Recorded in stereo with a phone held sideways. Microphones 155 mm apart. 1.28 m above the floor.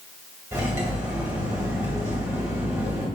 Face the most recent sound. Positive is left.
turn(degrees=-20)  # may be behind; listen again after turning